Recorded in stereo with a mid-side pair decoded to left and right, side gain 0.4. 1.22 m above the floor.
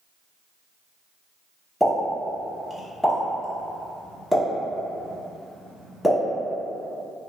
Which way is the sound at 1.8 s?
5° left.